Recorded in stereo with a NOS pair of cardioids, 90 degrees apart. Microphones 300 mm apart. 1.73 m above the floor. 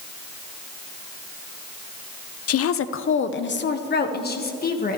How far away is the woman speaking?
About 0.6 m.